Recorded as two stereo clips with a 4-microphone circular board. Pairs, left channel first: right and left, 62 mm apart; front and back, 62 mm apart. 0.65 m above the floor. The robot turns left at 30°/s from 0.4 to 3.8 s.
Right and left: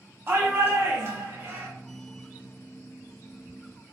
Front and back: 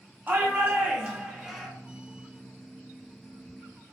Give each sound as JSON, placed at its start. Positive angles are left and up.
{"t": 0.3, "sound": "a shout", "azimuth_deg": 130, "distance_m": 1.6}